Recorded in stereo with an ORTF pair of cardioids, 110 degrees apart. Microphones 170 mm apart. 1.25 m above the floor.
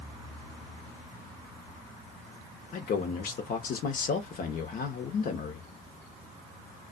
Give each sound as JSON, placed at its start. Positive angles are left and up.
{"t": 2.7, "sound": "a man speaking", "azimuth_deg": 55, "distance_m": 1.0}